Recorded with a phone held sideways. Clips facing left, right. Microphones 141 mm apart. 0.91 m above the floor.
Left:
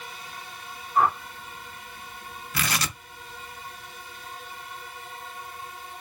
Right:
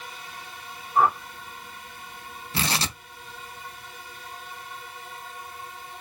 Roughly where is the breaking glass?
No breaking glass in this recording.